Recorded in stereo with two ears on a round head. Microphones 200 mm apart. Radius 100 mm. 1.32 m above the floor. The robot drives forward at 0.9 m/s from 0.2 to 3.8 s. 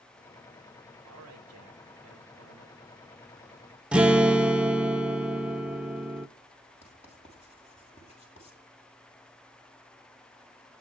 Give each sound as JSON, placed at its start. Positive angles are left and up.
{"t": 1.0, "sound": "a man speaking", "side_deg": -80, "distance_m": 4.0}
{"t": 3.9, "sound": "a guitar", "side_deg": -5, "distance_m": 0.6}
{"t": 6.8, "sound": "writing", "side_deg": 30, "distance_m": 8.0}